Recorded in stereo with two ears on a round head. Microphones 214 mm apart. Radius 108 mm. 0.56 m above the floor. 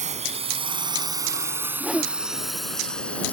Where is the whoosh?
Centre (ahead or behind).